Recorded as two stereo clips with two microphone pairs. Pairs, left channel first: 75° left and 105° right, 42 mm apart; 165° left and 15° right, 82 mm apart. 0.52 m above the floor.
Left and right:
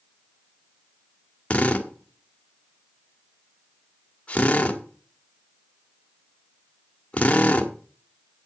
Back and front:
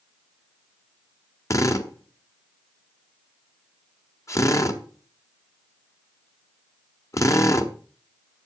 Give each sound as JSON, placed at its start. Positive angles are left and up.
{"t": 1.5, "sound": "a drill", "azimuth_deg": 130, "distance_m": 1.4}